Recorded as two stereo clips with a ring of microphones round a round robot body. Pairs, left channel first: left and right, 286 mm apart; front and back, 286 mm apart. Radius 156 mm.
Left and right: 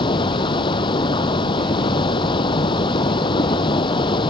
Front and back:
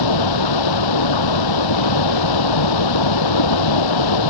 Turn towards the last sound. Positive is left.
turn(degrees=15)